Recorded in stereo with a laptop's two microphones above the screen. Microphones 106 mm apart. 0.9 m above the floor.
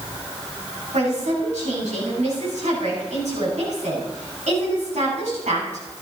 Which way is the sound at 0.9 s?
80° right.